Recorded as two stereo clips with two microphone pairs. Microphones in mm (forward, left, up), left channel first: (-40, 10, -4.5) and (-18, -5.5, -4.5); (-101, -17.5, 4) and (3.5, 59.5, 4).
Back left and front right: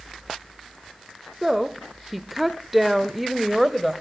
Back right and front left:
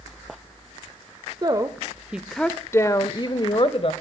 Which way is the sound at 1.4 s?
45° left.